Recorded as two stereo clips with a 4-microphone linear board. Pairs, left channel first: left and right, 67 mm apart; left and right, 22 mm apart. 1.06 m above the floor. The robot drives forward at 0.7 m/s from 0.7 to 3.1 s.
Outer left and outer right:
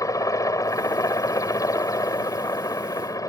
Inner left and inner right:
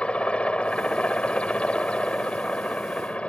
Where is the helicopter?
55° left (ahead or behind); by 3.3 s 60° left (ahead or behind).